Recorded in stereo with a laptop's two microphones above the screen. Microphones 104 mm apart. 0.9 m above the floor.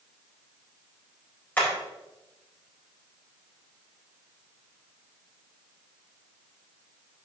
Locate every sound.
1.6 s hammering: 20° left (ahead or behind), 4 m